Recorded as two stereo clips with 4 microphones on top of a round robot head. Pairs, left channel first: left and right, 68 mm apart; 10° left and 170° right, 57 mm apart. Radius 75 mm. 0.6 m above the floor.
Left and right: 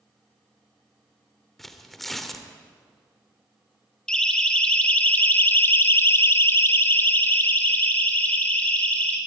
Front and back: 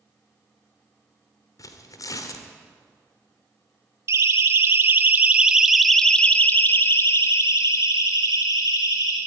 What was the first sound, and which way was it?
Tearing paper, 5° left.